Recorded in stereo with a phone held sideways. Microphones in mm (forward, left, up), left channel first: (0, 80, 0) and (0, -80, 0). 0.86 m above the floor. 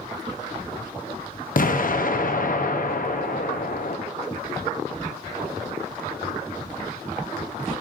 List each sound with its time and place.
1.6 s an explosion: 60° left (ahead or behind), 0.6 m